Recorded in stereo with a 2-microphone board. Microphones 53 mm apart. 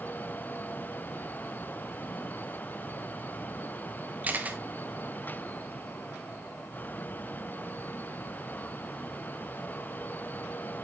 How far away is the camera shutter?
About 1.0 m.